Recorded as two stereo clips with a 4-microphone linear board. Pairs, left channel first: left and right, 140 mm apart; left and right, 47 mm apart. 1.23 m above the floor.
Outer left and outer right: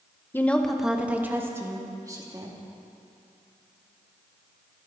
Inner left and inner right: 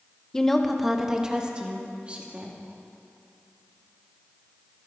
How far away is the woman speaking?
About 1.0 m.